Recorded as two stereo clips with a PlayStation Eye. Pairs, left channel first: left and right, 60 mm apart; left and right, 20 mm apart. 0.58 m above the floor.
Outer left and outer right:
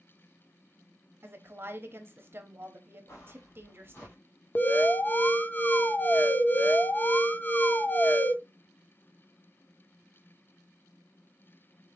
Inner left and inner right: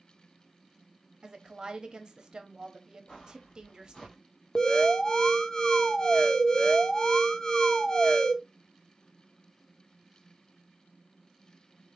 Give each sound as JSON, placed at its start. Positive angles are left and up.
{"t": 1.2, "sound": "a woman speaking", "side_deg": -40, "distance_m": 1.0}
{"t": 3.1, "sound": "footsteps", "side_deg": 55, "distance_m": 2.5}
{"t": 4.5, "sound": "an alarm", "side_deg": 30, "distance_m": 0.6}